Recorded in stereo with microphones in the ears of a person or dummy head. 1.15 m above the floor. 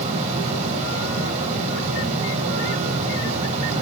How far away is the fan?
About 3.5 m.